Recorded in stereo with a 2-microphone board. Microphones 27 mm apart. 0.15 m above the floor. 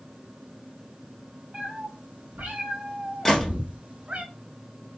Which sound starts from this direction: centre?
A gunshot, at 3.2 s.